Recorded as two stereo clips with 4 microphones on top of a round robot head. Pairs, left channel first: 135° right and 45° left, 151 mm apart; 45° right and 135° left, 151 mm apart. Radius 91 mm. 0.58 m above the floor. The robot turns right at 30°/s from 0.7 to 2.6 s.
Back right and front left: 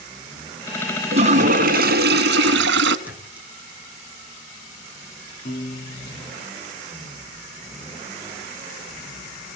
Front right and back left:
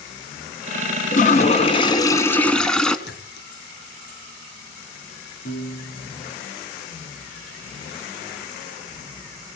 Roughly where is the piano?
Right.